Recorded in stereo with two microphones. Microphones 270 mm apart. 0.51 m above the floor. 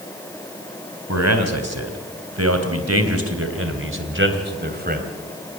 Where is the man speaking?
75° right (ahead or behind), 3.5 m; by 5.1 s 35° right (ahead or behind), 3 m.